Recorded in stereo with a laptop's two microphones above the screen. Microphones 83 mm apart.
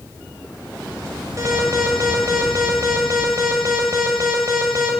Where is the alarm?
40° right (ahead or behind), 7 m.